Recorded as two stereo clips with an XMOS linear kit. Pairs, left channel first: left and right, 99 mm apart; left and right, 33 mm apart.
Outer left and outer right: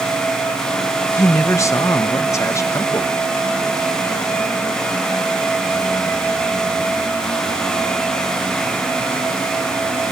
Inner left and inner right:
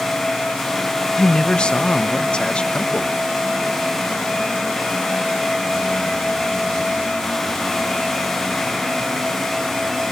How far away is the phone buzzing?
I don't hear a phone buzzing.